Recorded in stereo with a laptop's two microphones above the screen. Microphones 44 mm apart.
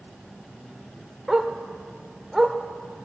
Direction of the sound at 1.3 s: 5° right (ahead or behind).